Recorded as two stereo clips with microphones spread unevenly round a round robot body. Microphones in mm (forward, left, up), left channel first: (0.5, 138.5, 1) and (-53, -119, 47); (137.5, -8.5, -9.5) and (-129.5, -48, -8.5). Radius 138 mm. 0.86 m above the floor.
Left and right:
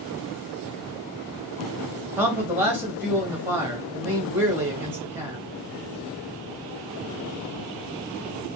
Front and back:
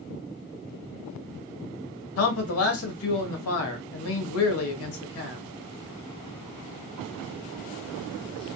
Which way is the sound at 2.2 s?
15° right.